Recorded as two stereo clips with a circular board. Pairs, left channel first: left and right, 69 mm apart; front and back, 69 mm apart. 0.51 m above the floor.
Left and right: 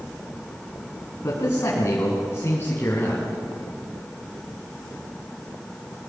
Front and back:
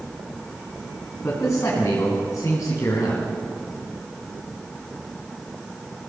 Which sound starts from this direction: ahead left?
A man speaking, at 1.2 s.